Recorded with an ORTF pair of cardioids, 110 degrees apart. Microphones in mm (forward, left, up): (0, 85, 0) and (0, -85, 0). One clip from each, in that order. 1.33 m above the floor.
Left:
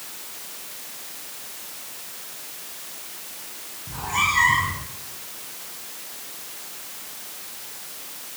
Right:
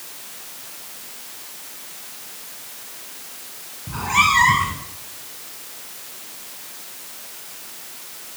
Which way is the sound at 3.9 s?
45° right.